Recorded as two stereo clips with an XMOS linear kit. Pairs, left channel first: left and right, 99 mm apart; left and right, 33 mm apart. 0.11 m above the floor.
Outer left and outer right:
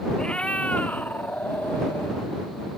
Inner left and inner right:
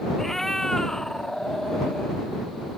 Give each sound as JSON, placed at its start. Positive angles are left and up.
{"t": 0.2, "sound": "a cat meowing", "side_deg": 10}